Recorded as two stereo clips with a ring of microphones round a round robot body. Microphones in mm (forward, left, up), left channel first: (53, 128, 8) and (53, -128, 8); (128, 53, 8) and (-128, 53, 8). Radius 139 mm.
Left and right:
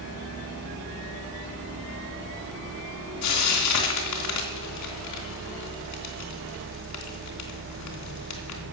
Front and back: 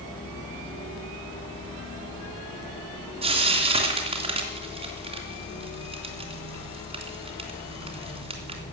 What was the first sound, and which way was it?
Frying, 115° left.